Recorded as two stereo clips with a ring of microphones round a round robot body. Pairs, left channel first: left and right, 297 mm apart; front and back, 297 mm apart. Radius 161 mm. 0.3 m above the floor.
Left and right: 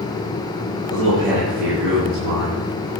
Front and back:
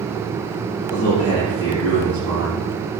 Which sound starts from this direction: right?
A man speaking, at 0.9 s.